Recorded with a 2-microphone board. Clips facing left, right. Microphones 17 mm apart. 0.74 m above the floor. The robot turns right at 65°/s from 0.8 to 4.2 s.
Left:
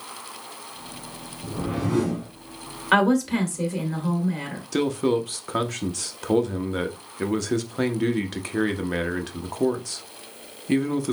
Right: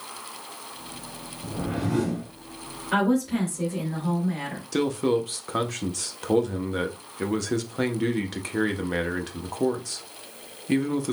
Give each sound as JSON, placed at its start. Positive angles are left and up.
{"t": 1.4, "sound": "a whoosh", "azimuth_deg": 10, "distance_m": 3.0}
{"t": 2.9, "sound": "a woman speaking", "azimuth_deg": 90, "distance_m": 1.9}
{"t": 4.7, "sound": "a man speaking", "side_deg": 0, "distance_m": 0.5}